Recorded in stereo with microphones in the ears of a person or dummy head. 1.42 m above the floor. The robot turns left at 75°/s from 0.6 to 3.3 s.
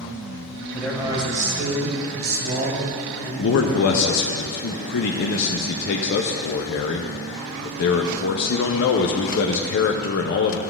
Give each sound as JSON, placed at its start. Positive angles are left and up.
{"t": 0.7, "sound": "a man speaking", "azimuth_deg": 5, "distance_m": 1.6}
{"t": 3.4, "sound": "a man speaking", "side_deg": 55, "distance_m": 0.5}